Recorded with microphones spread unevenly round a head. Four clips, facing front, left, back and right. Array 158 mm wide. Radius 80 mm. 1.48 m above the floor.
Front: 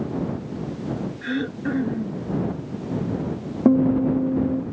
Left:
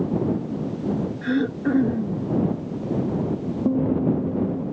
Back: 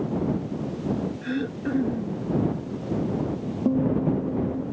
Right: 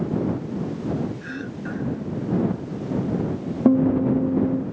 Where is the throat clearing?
90° left.